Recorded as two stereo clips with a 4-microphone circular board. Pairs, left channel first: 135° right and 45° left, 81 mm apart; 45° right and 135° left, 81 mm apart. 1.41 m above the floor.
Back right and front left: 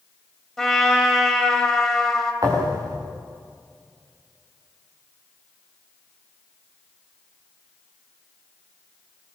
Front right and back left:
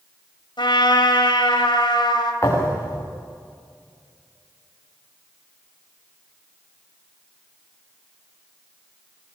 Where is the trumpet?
50° right, 4 m.